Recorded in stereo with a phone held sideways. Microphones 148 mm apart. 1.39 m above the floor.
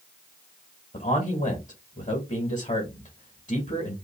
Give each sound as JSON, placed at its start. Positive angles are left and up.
{"t": 0.9, "sound": "a man speaking", "side_deg": 50, "distance_m": 2.0}